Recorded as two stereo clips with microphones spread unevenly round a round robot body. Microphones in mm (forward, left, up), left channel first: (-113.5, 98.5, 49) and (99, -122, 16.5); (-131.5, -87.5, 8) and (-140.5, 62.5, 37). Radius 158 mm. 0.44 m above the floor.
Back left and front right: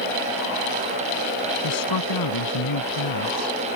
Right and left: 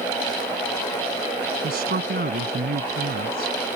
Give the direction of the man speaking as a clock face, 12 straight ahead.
8 o'clock.